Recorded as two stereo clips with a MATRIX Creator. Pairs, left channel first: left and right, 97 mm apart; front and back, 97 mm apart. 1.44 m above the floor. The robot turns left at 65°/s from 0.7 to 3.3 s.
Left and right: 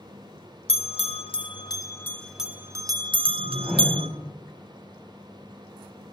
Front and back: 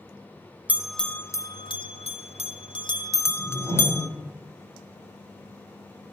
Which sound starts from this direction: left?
A bell, at 0.7 s.